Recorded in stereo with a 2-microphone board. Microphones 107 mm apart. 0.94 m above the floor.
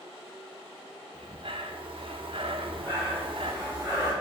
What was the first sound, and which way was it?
Breathing, 55° right (ahead or behind).